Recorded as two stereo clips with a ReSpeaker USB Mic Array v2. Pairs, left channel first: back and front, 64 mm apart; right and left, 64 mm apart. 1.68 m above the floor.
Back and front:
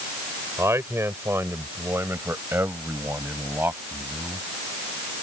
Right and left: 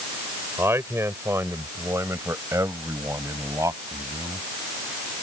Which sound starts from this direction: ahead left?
A man speaking, at 0.6 s.